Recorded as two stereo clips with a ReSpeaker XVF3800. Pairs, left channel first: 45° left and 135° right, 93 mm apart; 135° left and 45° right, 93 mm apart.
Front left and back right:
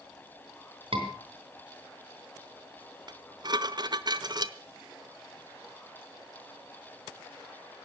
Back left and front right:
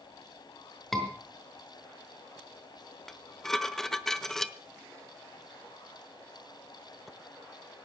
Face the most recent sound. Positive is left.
turn(degrees=-140)